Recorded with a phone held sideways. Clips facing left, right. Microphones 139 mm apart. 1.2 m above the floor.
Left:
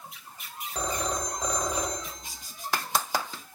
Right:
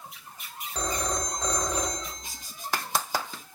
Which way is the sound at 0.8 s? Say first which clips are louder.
Even; 5° left (ahead or behind).